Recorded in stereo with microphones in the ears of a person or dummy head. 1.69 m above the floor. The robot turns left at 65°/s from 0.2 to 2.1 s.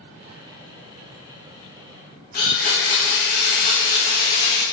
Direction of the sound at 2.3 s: 45° left (ahead or behind).